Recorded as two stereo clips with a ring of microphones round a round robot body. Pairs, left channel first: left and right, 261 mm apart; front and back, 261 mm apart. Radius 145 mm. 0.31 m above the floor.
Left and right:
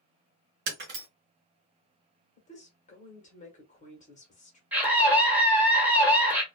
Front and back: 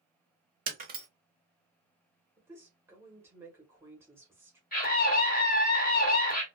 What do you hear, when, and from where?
0.7 s breaking glass: 130° right, 1.0 m
2.4 s a woman speaking: 110° left, 1.2 m
4.7 s a scream: 10° right, 1.5 m